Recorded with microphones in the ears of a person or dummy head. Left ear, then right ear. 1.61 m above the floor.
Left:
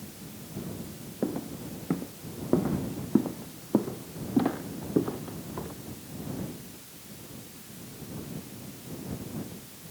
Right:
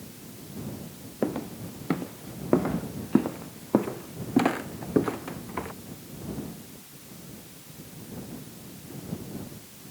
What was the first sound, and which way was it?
Footsteps, 70° right (ahead or behind).